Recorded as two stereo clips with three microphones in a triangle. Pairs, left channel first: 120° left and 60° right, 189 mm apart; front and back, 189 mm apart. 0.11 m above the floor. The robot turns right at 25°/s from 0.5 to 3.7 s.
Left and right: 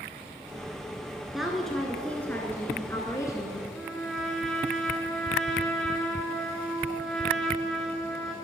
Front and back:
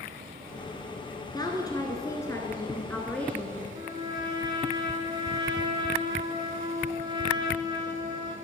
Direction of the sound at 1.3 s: 25° left.